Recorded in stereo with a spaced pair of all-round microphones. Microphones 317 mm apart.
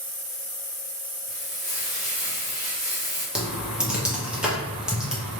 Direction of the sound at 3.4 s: 5° right (ahead or behind).